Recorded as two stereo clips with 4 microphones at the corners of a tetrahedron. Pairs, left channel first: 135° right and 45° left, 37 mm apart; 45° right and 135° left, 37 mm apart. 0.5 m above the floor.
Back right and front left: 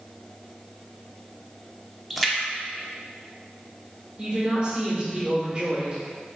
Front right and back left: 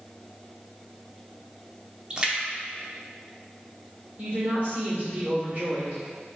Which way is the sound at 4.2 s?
105° left.